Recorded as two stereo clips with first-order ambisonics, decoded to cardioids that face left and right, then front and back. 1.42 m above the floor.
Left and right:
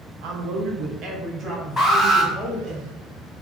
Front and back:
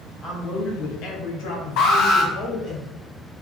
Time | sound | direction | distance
0.2 | a man speaking | 80° right | 0.8 m
1.8 | an alarm | 10° left | 1.6 m